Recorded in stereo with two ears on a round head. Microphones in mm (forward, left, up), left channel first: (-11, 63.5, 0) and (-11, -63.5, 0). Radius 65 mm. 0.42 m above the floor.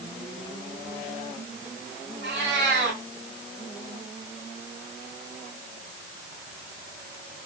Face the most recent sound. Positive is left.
turn(degrees=-90)